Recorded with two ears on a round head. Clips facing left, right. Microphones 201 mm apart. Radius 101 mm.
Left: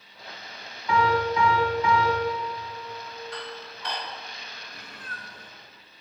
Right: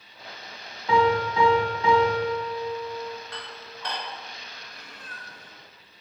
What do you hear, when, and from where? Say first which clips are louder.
0.9 s a piano: right 2 dB; 20° right (ahead or behind), 1.5 m
3.3 s dishes clattering: left 3 dB; 45° right (ahead or behind), 2.5 m
4.7 s a cat meowing: left 2 dB; 45° left (ahead or behind), 1.2 m